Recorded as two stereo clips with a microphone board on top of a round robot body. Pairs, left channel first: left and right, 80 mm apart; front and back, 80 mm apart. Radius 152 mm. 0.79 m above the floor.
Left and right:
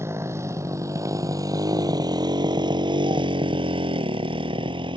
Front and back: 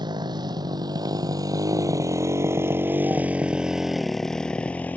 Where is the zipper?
No zipper in this recording.